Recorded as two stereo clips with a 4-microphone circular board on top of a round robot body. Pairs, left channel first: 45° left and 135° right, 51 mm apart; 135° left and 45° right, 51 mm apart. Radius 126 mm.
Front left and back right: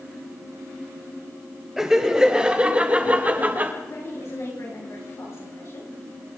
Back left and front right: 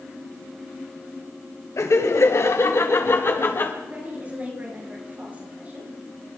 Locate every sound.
1.8 s laughter: 145° left, 3.5 m; by 3.7 s 175° left, 3.5 m
3.8 s a woman speaking: 15° left, 8 m